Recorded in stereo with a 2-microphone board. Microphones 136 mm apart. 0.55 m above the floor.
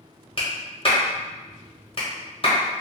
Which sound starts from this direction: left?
A clap, at 0.4 s.